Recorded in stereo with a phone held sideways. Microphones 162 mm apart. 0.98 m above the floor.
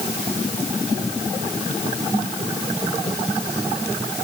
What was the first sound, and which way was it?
Only background noise.